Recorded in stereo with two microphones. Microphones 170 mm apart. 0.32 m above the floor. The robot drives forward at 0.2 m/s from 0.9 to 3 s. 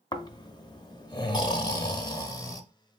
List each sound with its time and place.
0.1 s snoring: 25° left (ahead or behind), 0.6 m; by 2.6 s 20° left (ahead or behind), 0.7 m